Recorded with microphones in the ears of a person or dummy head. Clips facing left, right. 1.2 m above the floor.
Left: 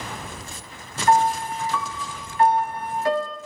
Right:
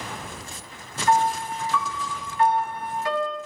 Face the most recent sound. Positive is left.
turn(degrees=45)  # may be behind; listen again after turning